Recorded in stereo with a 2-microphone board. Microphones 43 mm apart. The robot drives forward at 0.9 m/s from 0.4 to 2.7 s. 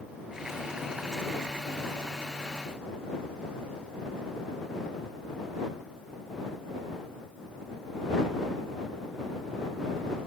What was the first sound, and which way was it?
Only background noise.